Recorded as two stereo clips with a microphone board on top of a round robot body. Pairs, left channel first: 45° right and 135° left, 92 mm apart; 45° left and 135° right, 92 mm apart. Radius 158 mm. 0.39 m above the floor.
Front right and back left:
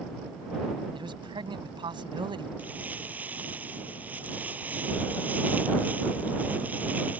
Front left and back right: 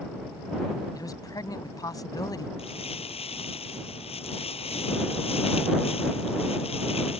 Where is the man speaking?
95° left.